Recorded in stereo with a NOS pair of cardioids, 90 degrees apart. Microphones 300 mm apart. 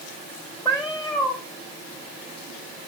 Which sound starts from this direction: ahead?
A cat meowing, at 0.7 s.